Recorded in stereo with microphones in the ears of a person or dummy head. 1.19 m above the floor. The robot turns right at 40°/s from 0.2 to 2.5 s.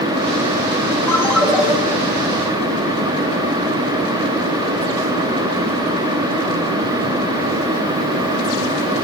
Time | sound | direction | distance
1.1 | a ringtone | 10° left (ahead or behind) | 1.4 m